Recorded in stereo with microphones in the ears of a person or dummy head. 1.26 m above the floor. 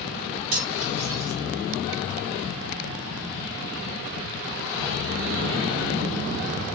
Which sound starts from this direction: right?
Cutlery clinking, at 0.5 s.